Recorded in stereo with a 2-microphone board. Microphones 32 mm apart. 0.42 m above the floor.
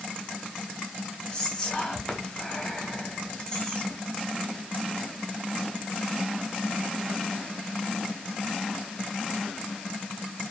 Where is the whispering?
25° left (ahead or behind), 1.0 m.